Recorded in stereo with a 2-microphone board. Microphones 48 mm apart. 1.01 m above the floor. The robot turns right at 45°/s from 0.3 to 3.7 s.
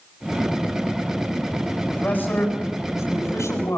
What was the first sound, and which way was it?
A man speaking, 25° left.